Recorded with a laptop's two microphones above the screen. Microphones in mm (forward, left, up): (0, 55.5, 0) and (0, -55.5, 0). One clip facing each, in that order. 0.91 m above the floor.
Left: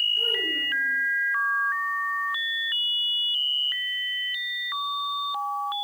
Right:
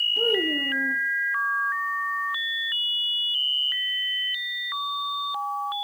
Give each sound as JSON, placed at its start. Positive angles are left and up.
{"t": 0.2, "sound": "a child speaking", "side_deg": -70, "distance_m": 0.8}